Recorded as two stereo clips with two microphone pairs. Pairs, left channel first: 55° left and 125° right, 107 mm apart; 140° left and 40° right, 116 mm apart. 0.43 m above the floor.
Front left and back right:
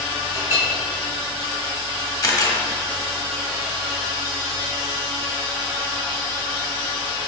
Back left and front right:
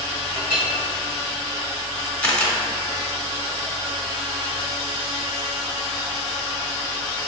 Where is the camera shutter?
70° left, 0.8 m.